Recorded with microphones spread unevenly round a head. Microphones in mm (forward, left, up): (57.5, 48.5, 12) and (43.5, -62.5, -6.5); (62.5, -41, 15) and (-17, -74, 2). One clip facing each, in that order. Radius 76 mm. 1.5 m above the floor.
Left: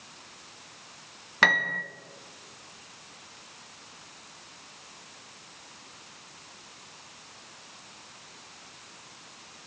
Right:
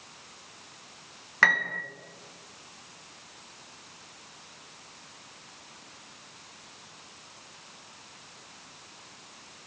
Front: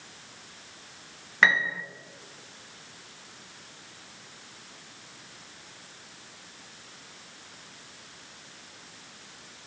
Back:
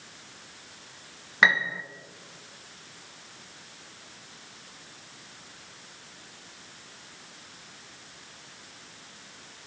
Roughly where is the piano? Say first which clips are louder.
Left 1 dB, even; behind left.